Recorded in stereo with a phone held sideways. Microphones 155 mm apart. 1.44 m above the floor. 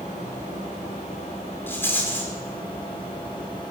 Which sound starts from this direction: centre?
A rattle, at 1.7 s.